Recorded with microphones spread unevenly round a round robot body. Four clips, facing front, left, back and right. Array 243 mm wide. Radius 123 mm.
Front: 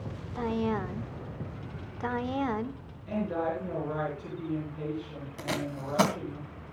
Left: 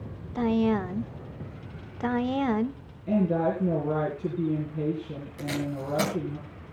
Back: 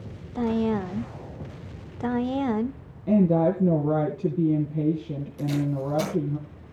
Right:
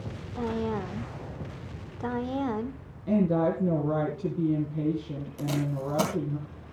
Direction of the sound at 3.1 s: 165° right.